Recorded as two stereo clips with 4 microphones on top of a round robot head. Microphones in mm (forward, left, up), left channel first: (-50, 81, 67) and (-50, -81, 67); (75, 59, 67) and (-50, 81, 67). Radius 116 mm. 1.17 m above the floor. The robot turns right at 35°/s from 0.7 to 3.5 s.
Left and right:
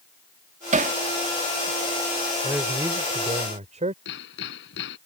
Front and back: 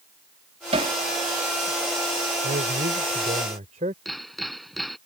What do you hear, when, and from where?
0.7 s hammering: 135° right; by 0.9 s 125° right
2.4 s a man speaking: 175° right; by 4.0 s 140° right
4.0 s hammering: 80° left